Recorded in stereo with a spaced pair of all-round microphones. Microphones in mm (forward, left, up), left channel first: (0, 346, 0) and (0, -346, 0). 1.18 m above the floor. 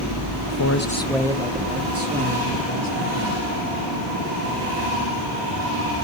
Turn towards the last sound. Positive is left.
turn(degrees=-30)  # may be behind; listen again after turning